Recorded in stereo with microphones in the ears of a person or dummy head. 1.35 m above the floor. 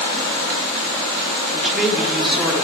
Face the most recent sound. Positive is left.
turn(degrees=0)  # may be behind; listen again after turning